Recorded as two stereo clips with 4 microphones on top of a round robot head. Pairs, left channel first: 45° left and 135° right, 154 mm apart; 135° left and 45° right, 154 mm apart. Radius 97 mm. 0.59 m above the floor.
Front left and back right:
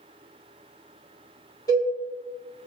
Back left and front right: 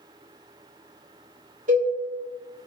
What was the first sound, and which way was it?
A cowbell, 20° right.